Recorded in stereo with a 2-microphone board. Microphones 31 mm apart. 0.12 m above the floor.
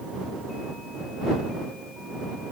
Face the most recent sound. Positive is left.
No sound to turn to.